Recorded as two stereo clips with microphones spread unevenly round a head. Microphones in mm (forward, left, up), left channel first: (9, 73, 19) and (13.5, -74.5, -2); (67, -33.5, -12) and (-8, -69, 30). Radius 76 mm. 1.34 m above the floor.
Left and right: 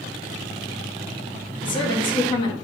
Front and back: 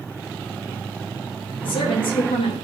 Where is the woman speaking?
30° left, 2.5 m.